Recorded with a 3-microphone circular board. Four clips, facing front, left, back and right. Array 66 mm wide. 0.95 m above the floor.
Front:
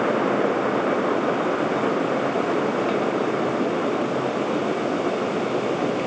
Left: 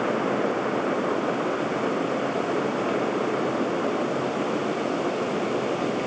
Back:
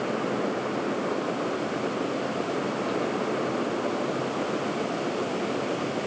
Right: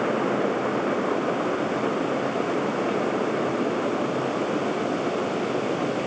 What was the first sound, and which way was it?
Only background noise.